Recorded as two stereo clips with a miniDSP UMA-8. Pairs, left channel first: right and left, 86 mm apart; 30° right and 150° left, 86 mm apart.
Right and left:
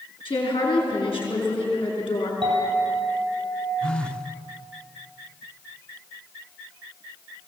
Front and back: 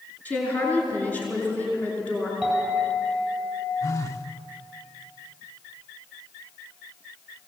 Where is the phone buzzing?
20° right, 1.0 m.